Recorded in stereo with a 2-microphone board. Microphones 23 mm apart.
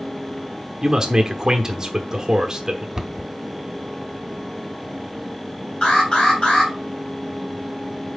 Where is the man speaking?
30° right (ahead or behind), 1.0 m.